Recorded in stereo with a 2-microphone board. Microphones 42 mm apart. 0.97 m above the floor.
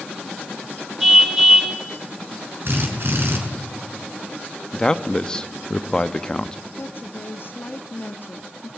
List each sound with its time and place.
1.0 s a car horn: 10° right (ahead or behind), 5 m
2.6 s a drill: 55° right (ahead or behind), 6 m
4.7 s a man speaking: 15° left (ahead or behind), 1.0 m
6.8 s a woman speaking: 55° left (ahead or behind), 2.0 m